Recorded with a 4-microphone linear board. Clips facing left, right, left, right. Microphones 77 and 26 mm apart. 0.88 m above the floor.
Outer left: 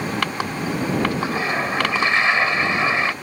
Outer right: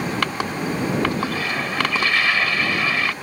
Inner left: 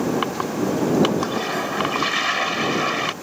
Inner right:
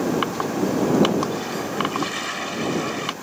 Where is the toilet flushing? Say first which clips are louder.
Outer left 2 dB, inner left 2 dB; 25° left (ahead or behind).